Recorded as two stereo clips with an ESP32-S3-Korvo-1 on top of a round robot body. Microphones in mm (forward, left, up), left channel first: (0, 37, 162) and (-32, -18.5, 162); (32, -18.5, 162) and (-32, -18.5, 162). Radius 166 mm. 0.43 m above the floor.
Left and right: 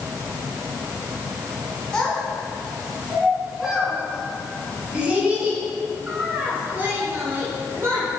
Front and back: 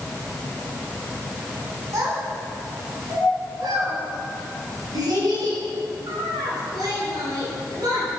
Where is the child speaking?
140° left, 4 m; by 8.1 s 175° right, 5.5 m.